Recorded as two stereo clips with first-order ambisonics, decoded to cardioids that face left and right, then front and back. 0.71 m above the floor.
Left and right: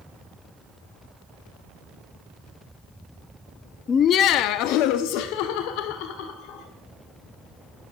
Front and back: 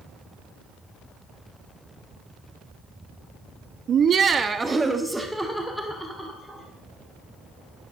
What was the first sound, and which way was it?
Laughter, 145° left.